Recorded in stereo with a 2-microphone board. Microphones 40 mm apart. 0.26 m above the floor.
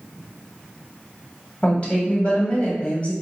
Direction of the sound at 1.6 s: 35° left (ahead or behind).